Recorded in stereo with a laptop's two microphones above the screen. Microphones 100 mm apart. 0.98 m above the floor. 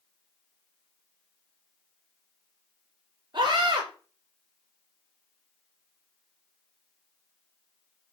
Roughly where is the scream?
Right.